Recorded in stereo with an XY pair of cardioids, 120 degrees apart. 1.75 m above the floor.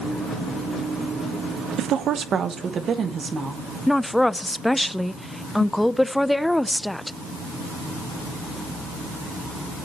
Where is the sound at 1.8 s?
70° right, 0.8 m; by 3.8 s 35° right, 2.5 m.